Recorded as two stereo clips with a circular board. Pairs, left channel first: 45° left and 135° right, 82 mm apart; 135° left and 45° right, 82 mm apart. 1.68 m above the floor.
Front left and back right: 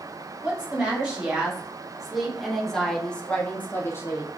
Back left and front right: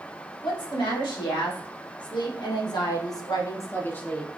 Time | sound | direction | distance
0.4 | a woman speaking | 150° left | 2.0 m